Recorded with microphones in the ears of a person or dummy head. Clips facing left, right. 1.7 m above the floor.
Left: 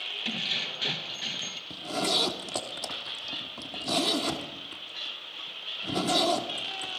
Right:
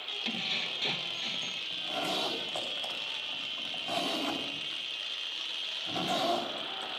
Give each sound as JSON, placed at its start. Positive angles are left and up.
{"t": 0.2, "sound": "keys jangling", "side_deg": 5, "distance_m": 1.1}
{"t": 1.7, "sound": "a zipper", "side_deg": 55, "distance_m": 3.5}